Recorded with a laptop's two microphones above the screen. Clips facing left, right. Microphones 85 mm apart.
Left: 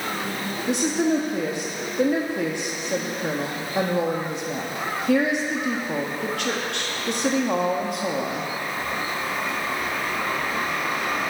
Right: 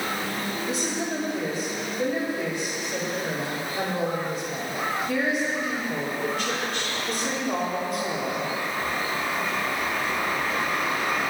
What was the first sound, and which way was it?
A woman speaking, 65° left (ahead or behind).